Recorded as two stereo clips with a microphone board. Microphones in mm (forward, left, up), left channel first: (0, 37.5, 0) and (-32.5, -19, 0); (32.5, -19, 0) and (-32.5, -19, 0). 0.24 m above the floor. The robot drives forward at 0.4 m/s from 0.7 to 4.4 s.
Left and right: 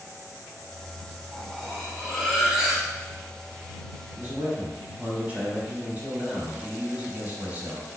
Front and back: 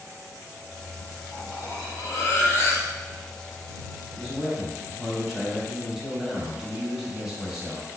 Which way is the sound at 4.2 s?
90° right.